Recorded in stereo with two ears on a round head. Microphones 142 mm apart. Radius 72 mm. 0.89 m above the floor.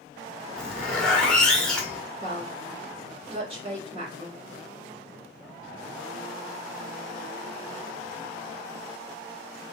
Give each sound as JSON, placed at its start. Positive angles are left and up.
{"t": 0.6, "sound": "a zipper", "side_deg": 5, "distance_m": 0.9}
{"t": 2.2, "sound": "a woman speaking", "side_deg": -35, "distance_m": 2.5}